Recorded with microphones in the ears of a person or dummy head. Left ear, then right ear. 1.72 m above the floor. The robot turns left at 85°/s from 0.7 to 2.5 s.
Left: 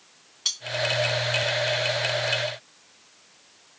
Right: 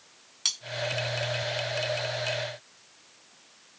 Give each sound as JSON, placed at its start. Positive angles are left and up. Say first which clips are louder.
{"t": 0.5, "sound": "cutlery clinking", "louder": "left 1 dB", "side_deg": -30, "distance_m": 1.0}